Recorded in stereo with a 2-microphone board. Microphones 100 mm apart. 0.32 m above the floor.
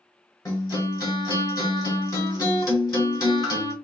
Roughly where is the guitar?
Left.